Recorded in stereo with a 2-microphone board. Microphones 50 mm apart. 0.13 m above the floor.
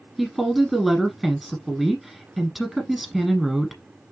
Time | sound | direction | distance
0.2 | a woman speaking | centre (ahead or behind) | 1.2 m